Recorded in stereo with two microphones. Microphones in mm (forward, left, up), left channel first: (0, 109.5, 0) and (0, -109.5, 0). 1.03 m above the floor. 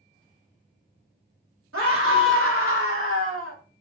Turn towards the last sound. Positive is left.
turn(degrees=-75)  # may be behind; listen again after turning